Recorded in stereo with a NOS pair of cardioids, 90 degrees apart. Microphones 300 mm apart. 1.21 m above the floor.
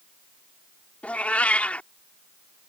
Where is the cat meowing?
5° left.